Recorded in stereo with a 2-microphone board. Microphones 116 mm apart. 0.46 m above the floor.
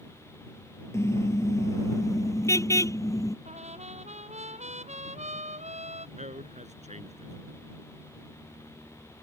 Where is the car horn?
25° left (ahead or behind); by 3.4 s 30° left (ahead or behind).